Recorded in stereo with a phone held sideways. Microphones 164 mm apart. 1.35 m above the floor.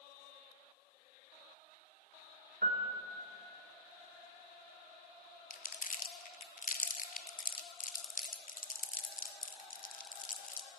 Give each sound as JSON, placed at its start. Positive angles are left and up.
{"t": 2.6, "sound": "a piano", "side_deg": -60, "distance_m": 0.8}
{"t": 5.5, "sound": "crumpling", "side_deg": 55, "distance_m": 0.6}